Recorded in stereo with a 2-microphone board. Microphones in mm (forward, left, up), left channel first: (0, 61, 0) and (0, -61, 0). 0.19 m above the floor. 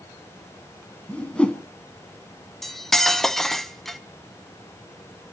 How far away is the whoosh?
About 1.3 m.